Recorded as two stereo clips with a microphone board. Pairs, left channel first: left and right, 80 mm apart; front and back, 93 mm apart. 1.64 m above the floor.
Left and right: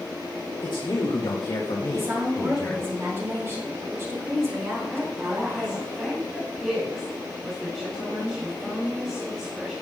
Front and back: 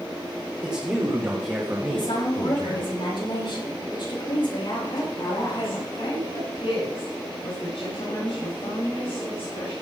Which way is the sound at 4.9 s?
10° right.